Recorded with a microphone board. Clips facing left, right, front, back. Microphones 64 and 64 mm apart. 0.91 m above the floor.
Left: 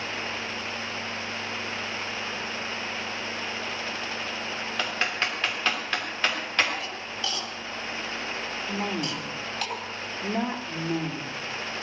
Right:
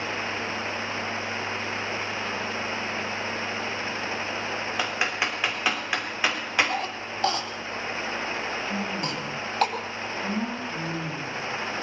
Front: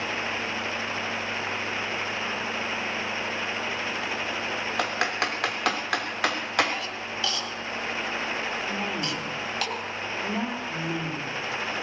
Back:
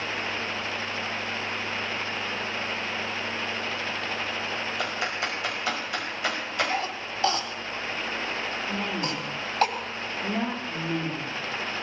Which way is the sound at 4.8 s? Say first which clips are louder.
Even, front 5 dB; 15° right.